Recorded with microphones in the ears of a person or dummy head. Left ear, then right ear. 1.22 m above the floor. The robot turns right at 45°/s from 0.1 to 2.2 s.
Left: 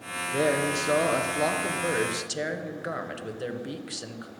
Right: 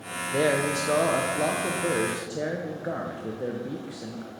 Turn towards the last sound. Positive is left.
turn(degrees=75)